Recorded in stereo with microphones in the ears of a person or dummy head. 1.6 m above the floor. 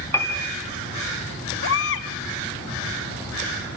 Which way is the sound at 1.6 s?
65° left (ahead or behind).